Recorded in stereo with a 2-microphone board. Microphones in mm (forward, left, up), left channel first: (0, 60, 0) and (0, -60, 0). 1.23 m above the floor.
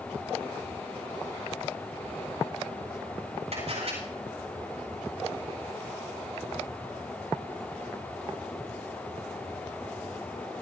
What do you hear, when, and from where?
3.5 s a camera shutter: 65° right (ahead or behind), 9 m